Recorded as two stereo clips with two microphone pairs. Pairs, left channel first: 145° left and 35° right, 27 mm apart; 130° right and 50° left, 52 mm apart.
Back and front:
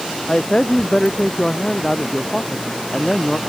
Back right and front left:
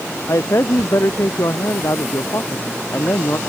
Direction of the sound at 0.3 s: 155° right.